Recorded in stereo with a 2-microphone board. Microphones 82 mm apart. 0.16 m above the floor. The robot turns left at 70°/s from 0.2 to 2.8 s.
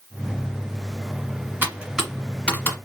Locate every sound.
1.6 s typing on a keyboard: 25° right (ahead or behind), 1.3 m; by 2.8 s 25° left (ahead or behind), 1.3 m